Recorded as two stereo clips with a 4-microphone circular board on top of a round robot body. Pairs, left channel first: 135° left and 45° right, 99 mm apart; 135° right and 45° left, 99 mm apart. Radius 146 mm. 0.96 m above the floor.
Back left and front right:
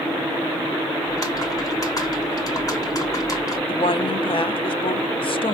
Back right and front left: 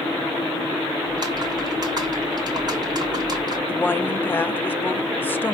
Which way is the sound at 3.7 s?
155° left.